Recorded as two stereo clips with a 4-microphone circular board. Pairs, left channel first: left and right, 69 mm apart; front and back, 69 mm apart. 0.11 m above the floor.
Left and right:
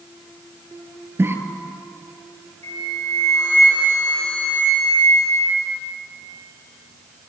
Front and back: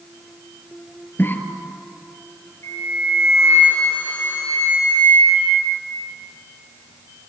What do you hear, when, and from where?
1.2 s a cough: 50° right, 2.5 m
2.6 s a flute: 55° left, 7.5 m